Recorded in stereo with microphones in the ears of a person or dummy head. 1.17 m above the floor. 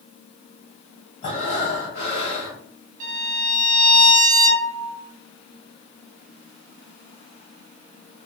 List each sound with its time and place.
1.2 s breathing: 35° left (ahead or behind), 1.3 m
3.0 s a violin: 55° right (ahead or behind), 0.6 m